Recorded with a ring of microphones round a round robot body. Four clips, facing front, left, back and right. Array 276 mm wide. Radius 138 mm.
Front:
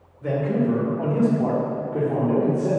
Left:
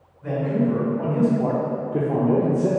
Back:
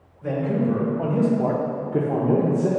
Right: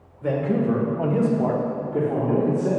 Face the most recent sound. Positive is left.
turn(degrees=135)